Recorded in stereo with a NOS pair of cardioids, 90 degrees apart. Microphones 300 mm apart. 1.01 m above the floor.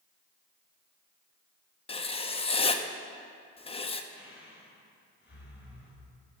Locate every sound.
1.9 s writing: 20° left, 0.6 m
4.1 s breathing: 40° left, 3.5 m